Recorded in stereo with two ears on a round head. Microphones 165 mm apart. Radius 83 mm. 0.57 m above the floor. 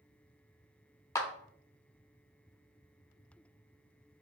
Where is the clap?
15° left (ahead or behind), 0.5 m.